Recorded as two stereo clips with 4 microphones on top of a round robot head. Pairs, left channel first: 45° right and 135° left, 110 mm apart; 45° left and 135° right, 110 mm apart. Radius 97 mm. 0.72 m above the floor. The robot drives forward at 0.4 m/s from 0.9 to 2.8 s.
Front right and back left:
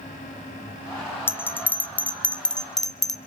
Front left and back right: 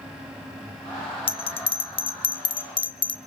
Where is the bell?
25° left, 1.5 m; by 3.2 s 40° left, 1.1 m.